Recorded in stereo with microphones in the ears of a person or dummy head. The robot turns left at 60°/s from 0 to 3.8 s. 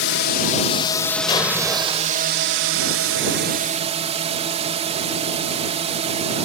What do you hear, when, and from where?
0.0 s a drone: 80° left; by 6.5 s 150° right
1.3 s an explosion: 25° left; by 2.3 s 35° right